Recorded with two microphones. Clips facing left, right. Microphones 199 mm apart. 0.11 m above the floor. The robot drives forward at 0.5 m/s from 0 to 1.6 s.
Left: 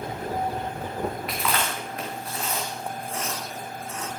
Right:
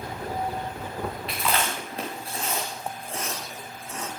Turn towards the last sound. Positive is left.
turn(degrees=-30)  # may be behind; listen again after turning